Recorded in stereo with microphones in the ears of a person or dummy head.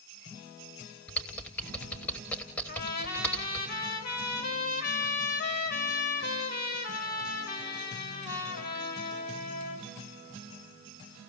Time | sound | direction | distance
1.1 | typing on a keyboard | 10° left (ahead or behind) | 1.1 m
2.7 | a trumpet | 55° left (ahead or behind) | 3 m